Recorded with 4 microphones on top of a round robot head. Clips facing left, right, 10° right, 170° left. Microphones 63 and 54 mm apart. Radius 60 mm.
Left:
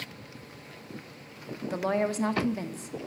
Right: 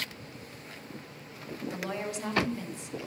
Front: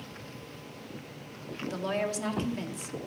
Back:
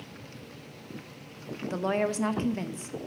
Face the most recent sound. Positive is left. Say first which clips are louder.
# left 8 dB, back 3 dB
turn(degrees=120)